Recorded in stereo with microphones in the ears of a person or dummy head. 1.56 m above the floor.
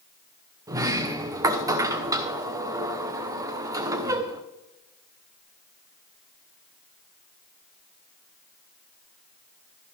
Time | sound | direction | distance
0.7 | a sliding door | 20° right (ahead or behind) | 0.8 m